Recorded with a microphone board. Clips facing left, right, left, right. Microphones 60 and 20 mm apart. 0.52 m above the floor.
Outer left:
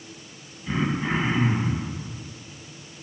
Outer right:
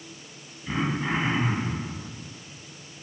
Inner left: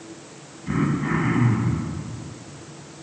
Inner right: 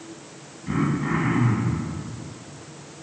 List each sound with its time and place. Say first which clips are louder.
0.7 s throat clearing: outer left 2 dB, inner left 1 dB; centre (ahead or behind), 1.4 m